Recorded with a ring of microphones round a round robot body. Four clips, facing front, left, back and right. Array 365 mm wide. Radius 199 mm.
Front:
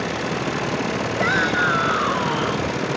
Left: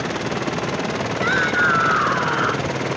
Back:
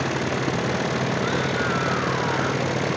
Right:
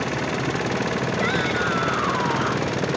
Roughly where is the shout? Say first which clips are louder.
Left 6 dB, front 4 dB; ahead.